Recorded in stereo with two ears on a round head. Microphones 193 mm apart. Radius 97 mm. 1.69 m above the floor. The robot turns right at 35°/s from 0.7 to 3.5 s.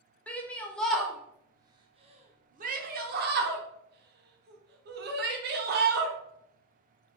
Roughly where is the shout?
Centre.